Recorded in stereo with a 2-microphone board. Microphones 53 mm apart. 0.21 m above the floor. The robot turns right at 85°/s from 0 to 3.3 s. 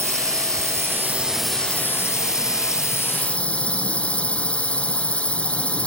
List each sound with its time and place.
0.0 s a drone: 125° right; by 5.9 s 160° left